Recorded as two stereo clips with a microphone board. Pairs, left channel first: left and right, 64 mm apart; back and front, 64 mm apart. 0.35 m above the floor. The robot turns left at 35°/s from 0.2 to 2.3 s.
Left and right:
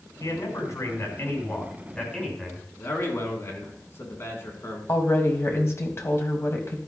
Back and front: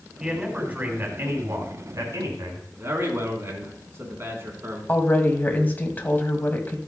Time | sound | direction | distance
0.2 | a man speaking | 80° left | 3 m
2.8 | a man speaking | 45° left | 3.5 m
4.9 | a woman speaking | 125° left | 1.9 m